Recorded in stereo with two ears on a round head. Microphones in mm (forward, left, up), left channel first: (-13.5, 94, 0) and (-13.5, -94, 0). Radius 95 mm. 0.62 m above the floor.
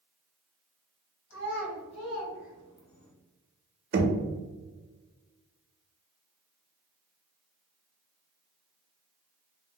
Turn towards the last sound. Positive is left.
turn(degrees=-40)  # may be behind; listen again after turning